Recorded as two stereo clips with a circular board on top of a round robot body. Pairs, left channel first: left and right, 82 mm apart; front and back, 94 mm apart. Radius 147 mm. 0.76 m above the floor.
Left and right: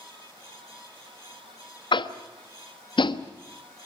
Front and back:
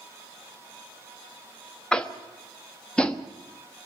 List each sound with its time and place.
1.9 s tapping: 80° left, 1.1 m